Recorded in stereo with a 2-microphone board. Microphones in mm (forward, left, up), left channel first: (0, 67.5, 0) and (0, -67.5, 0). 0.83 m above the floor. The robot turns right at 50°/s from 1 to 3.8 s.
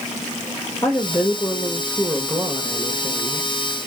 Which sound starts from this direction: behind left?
A woman speaking, at 0.8 s.